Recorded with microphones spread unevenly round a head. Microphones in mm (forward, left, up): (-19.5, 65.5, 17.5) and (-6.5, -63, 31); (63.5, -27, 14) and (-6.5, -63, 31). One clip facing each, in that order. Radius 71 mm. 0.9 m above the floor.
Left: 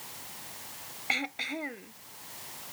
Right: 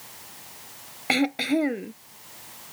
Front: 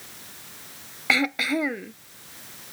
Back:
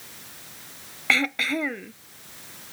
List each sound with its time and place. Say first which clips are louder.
1.1 s throat clearing: right 14 dB, front 1 dB; 55° right